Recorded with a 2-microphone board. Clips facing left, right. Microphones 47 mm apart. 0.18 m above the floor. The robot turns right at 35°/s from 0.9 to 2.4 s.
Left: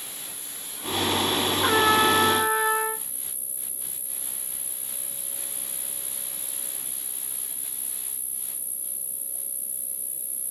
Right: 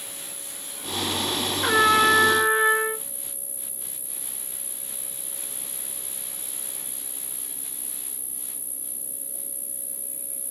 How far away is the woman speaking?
No woman speaking in this recording.